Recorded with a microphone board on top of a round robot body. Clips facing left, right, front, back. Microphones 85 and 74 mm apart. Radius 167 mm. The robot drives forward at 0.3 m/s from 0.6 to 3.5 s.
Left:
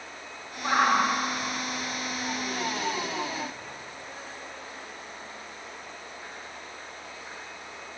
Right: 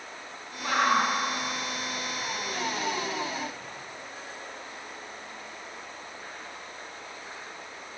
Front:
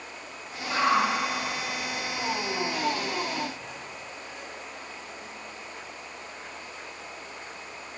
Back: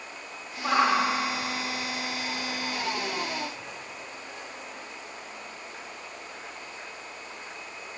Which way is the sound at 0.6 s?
160° left.